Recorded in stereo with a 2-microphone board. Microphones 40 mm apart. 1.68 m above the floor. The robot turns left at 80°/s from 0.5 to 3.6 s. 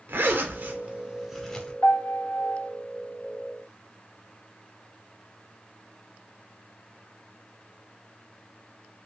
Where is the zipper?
65° right (ahead or behind), 0.6 m; by 1.7 s 30° left (ahead or behind), 0.6 m.